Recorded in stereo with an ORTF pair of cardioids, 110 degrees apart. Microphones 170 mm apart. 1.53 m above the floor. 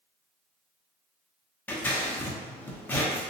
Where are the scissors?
10° left, 0.7 m.